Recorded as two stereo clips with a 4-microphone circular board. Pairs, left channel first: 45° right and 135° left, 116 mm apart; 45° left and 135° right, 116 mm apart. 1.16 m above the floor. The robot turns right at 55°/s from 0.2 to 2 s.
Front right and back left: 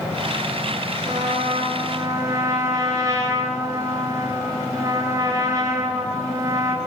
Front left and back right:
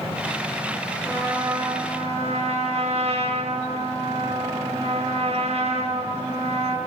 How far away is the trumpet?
About 9.5 m.